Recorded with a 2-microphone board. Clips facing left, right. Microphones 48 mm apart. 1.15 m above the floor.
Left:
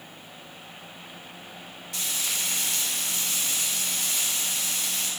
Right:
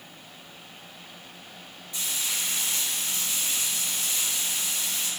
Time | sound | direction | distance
1.9 | frying | 75° left (ahead or behind) | 2.5 m